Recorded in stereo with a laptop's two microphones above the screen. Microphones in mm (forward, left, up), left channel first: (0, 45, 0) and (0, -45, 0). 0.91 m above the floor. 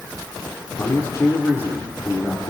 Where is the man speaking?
35° left (ahead or behind), 2.5 m.